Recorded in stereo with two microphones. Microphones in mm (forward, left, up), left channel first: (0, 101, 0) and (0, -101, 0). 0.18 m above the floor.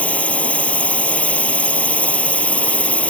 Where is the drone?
5° left (ahead or behind).